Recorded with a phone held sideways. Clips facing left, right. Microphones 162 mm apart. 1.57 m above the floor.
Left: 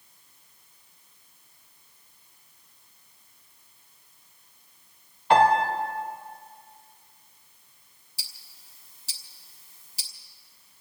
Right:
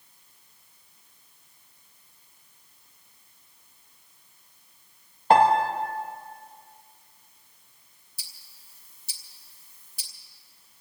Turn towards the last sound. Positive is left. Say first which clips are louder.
# left 4 dB
turn(degrees=85)